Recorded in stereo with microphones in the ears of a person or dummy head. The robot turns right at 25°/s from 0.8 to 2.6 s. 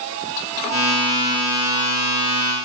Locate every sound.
Only background noise.